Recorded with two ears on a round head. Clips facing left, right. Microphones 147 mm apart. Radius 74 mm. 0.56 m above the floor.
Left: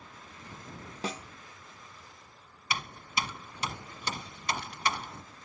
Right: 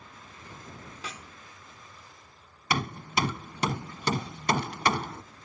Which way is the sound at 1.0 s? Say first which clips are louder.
Left 7 dB; 30° left (ahead or behind).